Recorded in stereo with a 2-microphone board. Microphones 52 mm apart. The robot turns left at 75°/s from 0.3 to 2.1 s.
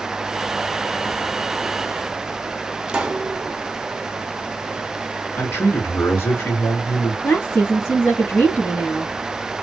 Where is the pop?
15° right (ahead or behind), 0.7 m.